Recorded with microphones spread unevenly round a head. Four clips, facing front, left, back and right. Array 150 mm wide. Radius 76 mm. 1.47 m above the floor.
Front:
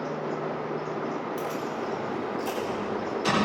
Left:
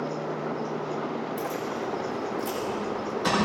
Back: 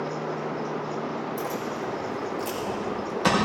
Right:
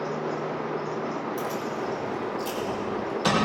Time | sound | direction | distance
1.4 | keys jangling | 150° right | 3.5 m